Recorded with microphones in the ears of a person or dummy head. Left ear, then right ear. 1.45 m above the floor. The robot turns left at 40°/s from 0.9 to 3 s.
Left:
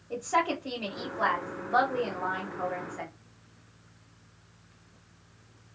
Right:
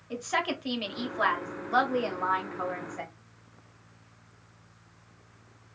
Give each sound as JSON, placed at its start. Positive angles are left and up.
{"t": 0.1, "sound": "a woman speaking", "azimuth_deg": -70, "distance_m": 1.1}